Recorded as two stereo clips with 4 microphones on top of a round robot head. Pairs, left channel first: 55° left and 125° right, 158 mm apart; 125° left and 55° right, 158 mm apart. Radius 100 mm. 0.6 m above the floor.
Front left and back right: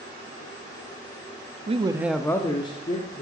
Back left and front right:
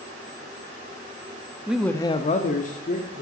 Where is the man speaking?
130° right, 0.9 m; by 3.2 s 105° left, 2.0 m.